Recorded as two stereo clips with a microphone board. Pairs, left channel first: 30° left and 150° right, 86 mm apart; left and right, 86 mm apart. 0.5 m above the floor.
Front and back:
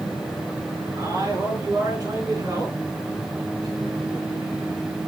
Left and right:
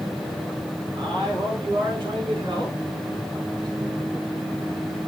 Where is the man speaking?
105° right, 5.5 m; by 4.5 s 115° right, 4 m.